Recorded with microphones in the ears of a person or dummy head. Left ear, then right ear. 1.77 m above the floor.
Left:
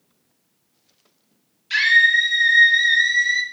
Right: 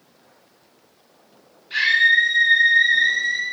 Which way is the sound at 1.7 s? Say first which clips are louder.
Left 1 dB; 75° left (ahead or behind).